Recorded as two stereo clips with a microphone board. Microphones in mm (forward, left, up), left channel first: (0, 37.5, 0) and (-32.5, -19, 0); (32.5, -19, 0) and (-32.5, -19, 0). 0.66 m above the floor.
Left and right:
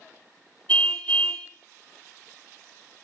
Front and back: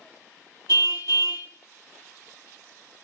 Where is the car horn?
5° right, 3 m.